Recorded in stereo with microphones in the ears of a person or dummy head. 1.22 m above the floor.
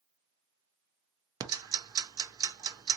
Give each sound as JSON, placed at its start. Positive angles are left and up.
{"t": 1.4, "sound": "ticking", "side_deg": -20, "distance_m": 0.5}